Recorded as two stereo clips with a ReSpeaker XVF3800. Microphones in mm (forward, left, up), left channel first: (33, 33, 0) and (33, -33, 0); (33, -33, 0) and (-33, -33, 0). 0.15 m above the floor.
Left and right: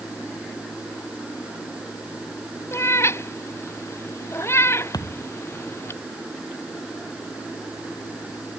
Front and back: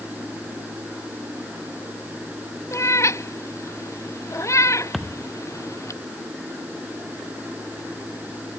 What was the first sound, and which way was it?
A cat meowing, 45° left.